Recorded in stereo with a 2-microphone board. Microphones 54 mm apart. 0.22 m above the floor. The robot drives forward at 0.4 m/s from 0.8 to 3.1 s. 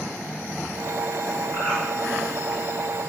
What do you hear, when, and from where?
1.5 s a bird: 40° left (ahead or behind), 1.9 m